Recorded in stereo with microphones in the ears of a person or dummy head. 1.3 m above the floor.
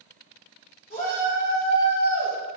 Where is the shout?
40° left (ahead or behind), 2.5 m; by 2.4 s 60° left (ahead or behind), 1.4 m.